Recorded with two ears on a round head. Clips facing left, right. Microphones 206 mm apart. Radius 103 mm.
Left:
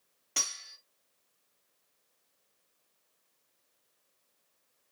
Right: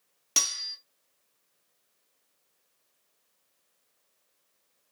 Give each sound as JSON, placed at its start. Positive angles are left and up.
{"t": 0.4, "sound": "cutlery clinking", "side_deg": -50, "distance_m": 0.9}